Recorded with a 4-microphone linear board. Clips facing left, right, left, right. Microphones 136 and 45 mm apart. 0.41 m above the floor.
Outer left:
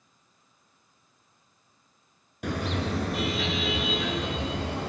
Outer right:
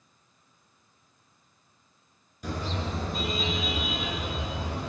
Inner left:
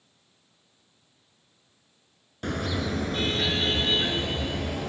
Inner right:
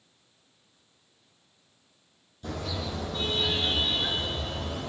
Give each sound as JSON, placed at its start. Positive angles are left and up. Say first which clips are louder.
{"t": 2.4, "sound": "a car horn", "louder": "outer left 4 dB, inner left 5 dB", "side_deg": 75, "distance_m": 2.5}